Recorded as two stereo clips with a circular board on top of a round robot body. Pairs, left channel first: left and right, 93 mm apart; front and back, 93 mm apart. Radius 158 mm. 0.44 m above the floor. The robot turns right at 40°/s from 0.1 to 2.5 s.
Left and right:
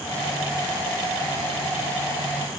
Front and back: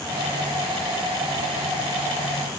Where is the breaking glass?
No breaking glass in this recording.